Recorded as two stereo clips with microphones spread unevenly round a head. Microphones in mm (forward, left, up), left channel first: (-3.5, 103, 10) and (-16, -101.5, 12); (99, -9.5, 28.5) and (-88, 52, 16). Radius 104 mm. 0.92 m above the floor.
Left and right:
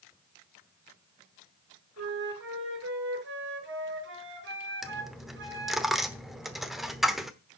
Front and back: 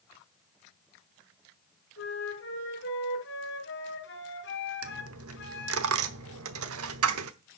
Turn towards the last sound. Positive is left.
turn(degrees=180)